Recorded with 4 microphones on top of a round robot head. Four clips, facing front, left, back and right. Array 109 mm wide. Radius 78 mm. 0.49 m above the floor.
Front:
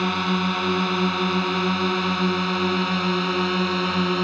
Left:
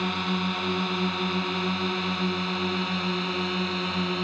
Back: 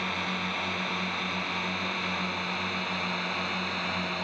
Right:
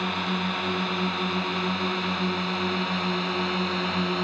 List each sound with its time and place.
0.0 s a drone: 5° left; by 4.2 s 5° right